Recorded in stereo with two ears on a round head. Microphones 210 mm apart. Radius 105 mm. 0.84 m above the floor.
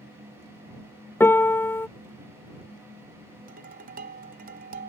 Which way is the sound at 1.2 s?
10° left (ahead or behind).